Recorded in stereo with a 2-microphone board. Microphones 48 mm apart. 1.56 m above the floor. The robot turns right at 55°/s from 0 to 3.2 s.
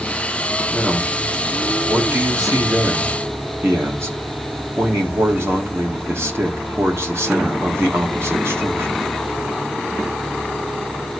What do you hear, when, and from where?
0.7 s a man speaking: 165° left, 2 m; by 9.1 s 60° right, 2 m